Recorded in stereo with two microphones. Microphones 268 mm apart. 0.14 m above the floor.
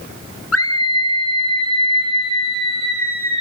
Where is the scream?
60° left (ahead or behind), 2.5 m; by 3.4 s 75° left (ahead or behind), 4 m.